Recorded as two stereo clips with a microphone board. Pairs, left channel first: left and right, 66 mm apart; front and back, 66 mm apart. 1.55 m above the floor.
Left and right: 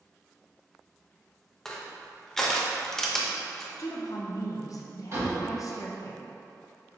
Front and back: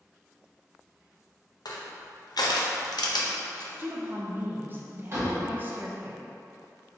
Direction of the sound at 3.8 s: 120° left.